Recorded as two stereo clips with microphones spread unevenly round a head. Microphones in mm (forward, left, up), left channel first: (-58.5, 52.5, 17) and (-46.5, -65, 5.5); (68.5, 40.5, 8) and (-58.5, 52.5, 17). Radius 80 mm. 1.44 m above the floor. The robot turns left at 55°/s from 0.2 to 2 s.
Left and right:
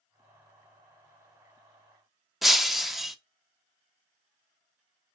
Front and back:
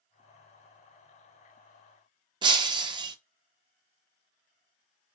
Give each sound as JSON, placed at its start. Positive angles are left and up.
{"t": 2.4, "sound": "breaking glass", "azimuth_deg": 180, "distance_m": 0.6}